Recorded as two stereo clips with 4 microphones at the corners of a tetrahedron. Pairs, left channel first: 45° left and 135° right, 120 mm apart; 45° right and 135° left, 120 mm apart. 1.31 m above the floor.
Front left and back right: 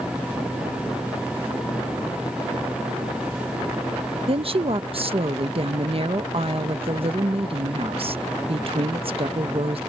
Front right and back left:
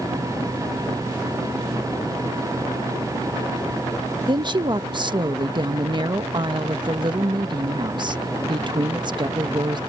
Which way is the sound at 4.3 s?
175° right.